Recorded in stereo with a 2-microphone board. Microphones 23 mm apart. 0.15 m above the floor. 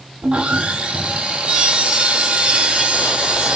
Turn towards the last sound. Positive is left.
turn(degrees=-50)  # may be behind; listen again after turning